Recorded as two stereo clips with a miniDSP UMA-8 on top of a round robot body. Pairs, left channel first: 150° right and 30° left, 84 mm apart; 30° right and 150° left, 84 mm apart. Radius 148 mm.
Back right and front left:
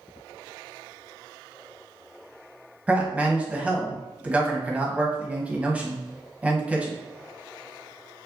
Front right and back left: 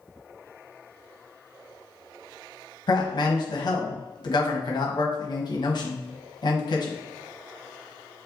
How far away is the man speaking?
About 1.1 m.